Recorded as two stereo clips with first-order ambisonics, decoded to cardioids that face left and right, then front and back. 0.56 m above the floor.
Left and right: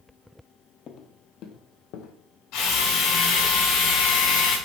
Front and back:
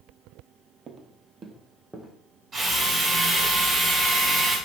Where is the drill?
115° left, 4 m.